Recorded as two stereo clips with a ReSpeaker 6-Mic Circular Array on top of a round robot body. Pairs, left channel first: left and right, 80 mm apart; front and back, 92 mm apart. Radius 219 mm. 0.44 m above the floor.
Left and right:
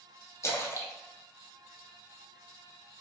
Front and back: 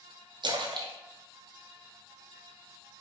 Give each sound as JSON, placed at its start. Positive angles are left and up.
{"t": 0.4, "sound": "a splash", "azimuth_deg": 145, "distance_m": 0.7}